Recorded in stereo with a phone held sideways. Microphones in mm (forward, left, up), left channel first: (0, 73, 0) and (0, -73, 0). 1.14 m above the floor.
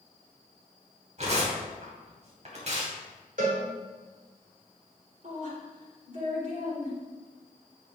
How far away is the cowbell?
About 3.5 m.